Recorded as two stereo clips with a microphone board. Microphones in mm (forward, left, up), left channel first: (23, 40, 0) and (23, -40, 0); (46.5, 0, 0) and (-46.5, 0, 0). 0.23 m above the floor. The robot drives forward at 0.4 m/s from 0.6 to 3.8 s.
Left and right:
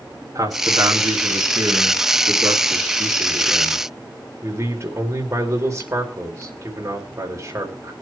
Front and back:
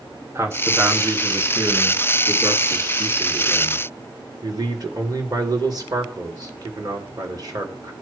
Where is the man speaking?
125° right, 3.5 m; by 7.9 s 140° right, 4.5 m.